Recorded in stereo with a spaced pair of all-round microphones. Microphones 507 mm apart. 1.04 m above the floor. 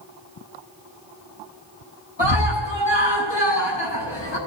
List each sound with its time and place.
2.2 s a scream: 55° left (ahead or behind), 9.5 m